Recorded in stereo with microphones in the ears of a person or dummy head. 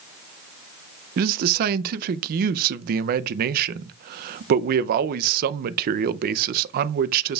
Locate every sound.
1.2 s a man speaking: 60° right (ahead or behind), 0.5 m